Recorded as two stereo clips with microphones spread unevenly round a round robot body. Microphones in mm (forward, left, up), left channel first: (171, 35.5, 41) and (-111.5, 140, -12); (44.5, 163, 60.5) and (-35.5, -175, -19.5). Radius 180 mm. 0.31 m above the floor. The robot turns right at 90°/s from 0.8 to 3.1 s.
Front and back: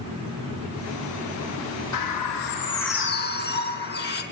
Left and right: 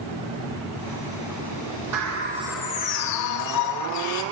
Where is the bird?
70° right, 2 m; by 4.2 s 35° left, 2 m.